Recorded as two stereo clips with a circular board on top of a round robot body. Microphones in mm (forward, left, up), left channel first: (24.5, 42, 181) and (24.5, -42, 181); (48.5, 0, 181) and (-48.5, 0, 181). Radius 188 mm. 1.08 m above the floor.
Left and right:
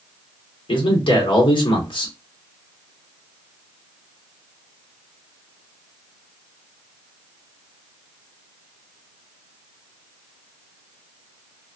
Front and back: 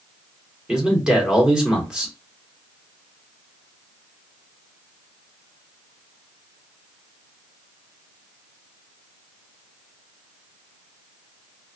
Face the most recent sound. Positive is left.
turn(degrees=100)